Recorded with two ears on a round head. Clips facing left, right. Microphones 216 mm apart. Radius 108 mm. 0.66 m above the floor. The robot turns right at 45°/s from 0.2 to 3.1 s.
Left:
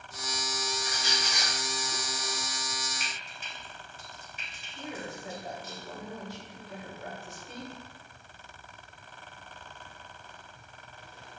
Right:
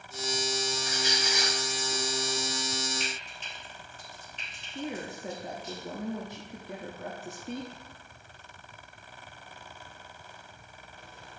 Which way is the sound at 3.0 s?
5° left (ahead or behind).